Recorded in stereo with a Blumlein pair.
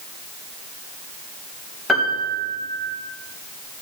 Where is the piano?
5° left, 1.8 m.